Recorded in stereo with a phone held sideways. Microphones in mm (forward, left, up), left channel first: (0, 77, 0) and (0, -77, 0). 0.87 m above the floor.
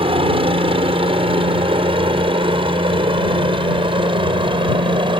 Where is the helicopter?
35° right (ahead or behind); by 5.2 s 30° right (ahead or behind).